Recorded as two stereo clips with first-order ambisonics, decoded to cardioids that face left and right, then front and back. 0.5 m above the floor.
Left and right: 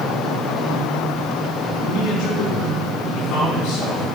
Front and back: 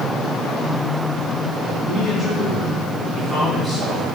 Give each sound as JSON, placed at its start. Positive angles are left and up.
{"t": 1.9, "sound": "a man speaking", "azimuth_deg": 100, "distance_m": 5.5}